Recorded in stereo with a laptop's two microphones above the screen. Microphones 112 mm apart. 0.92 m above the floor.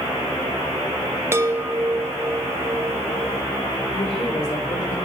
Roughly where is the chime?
Right.